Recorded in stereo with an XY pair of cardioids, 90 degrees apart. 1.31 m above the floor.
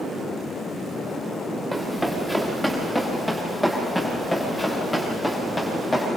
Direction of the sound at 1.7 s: 5° left.